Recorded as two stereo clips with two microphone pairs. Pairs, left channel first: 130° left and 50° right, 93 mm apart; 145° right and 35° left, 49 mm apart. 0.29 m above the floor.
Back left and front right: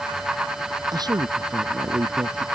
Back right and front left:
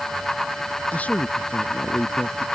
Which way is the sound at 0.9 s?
90° right.